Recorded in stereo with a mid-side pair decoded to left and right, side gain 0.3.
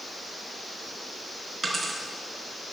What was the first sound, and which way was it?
A dropped coin, 50° right.